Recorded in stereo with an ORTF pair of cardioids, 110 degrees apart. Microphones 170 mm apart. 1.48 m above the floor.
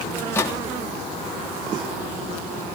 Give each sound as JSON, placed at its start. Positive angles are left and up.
{"t": 0.2, "sound": "a microwave", "azimuth_deg": 15, "distance_m": 3.0}